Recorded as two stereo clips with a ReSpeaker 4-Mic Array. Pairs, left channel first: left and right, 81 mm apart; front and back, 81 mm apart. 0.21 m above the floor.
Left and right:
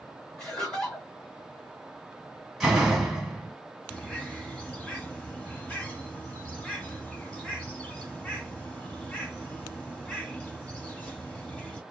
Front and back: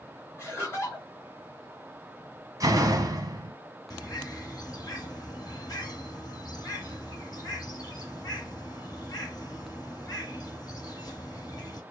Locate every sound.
0.4 s laughter: 15° left, 1.6 m
2.6 s a door slam: straight behind, 1.0 m
3.9 s a bird: 15° left, 1.2 m